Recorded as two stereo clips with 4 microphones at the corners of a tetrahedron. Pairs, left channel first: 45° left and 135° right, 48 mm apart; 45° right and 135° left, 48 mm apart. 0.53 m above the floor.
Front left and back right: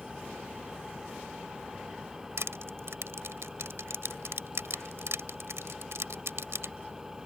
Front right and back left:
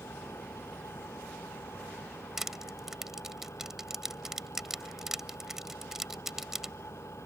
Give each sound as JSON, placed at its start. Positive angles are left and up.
{"t": 0.0, "sound": "an engine running", "azimuth_deg": -55}
{"t": 2.4, "sound": "crushing", "azimuth_deg": -145}